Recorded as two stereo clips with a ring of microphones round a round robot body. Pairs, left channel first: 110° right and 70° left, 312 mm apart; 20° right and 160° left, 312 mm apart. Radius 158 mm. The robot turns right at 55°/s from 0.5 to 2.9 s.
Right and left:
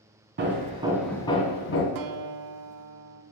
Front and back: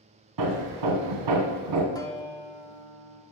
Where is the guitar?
55° left, 0.8 m; by 3.2 s 105° left, 0.8 m.